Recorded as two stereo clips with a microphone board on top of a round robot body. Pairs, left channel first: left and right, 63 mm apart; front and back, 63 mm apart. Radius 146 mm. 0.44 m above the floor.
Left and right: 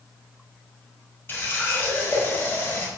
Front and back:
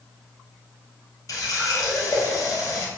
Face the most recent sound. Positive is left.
turn(degrees=30)